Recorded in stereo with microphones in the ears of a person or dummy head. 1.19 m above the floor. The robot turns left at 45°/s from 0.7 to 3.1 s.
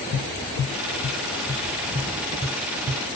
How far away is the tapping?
About 0.5 m.